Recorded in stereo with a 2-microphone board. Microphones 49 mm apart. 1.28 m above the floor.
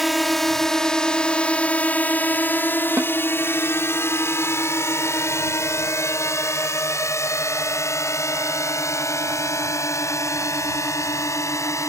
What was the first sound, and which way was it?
A drone, 5° right (ahead or behind).